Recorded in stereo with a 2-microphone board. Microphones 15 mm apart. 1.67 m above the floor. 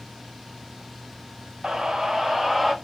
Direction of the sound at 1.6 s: 50° right (ahead or behind).